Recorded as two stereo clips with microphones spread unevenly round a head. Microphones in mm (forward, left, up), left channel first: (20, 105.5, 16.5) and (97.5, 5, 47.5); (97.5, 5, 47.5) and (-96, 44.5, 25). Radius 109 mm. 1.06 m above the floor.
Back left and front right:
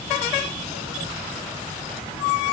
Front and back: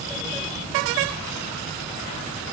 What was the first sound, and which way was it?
Only background noise.